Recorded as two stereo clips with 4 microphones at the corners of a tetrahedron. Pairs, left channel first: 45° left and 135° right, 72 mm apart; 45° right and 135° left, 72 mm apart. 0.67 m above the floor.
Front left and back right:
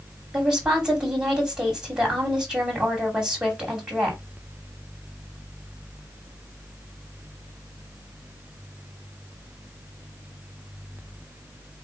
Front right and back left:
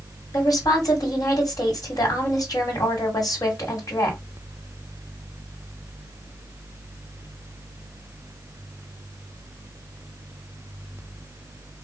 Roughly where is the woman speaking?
Ahead right.